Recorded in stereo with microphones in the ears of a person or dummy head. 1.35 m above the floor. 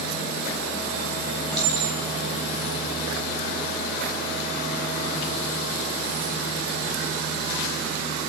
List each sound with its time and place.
1.5 s a clink: 5° left (ahead or behind), 4 m